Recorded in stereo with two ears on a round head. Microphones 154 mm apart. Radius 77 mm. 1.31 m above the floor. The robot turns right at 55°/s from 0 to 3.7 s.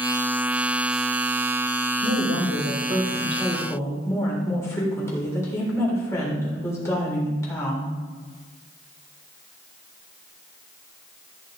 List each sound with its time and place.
2.0 s a woman speaking: 75° right, 4 m; by 7.9 s 15° left, 4 m